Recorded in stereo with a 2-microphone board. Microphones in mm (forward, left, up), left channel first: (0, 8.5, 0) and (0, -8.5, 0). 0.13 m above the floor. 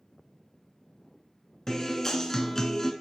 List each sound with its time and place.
1.7 s a guitar: 30° left (ahead or behind), 0.5 m